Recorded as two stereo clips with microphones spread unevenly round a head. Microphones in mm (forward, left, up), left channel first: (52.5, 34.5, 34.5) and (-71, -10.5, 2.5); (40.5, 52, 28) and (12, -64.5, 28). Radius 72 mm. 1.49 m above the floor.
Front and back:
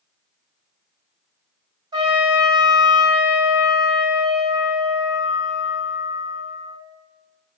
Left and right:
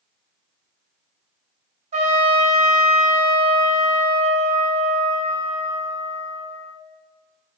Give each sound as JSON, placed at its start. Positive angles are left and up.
{"t": 1.9, "sound": "a trumpet", "azimuth_deg": -110, "distance_m": 0.5}